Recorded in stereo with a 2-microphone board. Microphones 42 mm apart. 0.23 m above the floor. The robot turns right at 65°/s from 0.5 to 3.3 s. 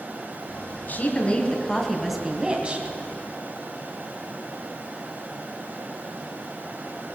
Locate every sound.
0.9 s a woman speaking: 105° left, 1.9 m; by 2.9 s 125° right, 1.9 m